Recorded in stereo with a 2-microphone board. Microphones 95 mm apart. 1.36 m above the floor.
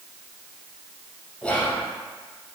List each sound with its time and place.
1.4 s whispering: 10° left (ahead or behind), 0.6 m